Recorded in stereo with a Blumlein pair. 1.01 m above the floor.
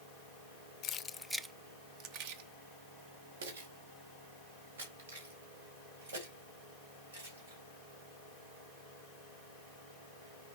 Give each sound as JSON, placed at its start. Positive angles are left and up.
{"t": 0.8, "sound": "keys jangling", "azimuth_deg": 30, "distance_m": 0.5}